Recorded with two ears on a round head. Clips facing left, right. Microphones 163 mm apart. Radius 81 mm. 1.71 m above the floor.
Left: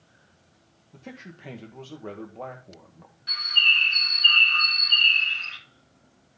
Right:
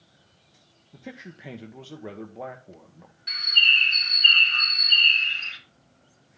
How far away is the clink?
I don't hear a clink.